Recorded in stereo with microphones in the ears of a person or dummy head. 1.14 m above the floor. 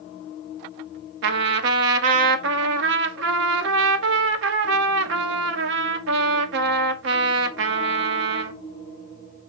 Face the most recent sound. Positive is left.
turn(degrees=-65)  # may be behind; listen again after turning